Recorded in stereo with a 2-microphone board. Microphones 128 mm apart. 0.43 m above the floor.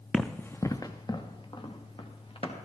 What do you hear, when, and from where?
0.1 s running footsteps: centre (ahead or behind), 1.1 m; by 2.5 s 45° left (ahead or behind), 4.5 m